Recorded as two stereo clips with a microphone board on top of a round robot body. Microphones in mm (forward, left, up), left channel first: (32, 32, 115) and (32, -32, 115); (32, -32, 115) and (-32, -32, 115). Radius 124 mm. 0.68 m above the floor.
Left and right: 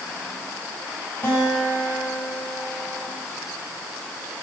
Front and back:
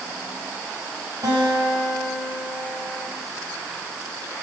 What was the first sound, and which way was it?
A guitar, 155° left.